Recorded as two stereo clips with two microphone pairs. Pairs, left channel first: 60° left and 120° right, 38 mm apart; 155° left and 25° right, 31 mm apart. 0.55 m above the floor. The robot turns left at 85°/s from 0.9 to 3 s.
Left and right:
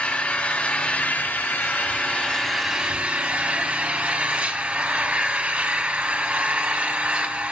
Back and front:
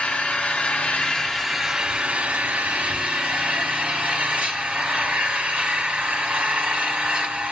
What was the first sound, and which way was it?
An engine running, 115° left.